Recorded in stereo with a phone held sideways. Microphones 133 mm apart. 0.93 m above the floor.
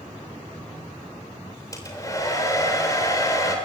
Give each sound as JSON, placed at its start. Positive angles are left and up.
{"t": 1.7, "sound": "a hair dryer", "side_deg": 25, "distance_m": 3.5}